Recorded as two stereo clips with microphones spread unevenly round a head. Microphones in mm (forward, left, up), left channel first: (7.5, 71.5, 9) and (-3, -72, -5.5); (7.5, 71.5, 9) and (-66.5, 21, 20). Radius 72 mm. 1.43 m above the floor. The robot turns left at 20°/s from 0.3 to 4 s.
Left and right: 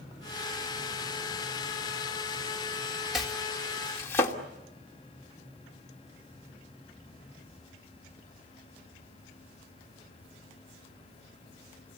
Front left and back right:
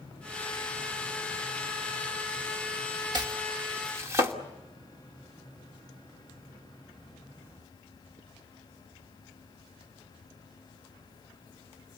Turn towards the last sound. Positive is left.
turn(degrees=160)